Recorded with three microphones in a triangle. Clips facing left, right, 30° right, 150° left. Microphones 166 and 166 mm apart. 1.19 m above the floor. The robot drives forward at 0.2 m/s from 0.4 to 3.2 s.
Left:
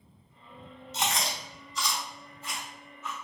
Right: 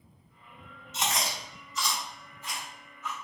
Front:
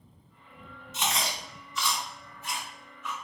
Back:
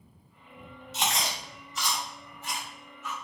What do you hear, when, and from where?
0.9 s chewing: 140° left, 1.7 m; by 3.1 s 150° left, 2 m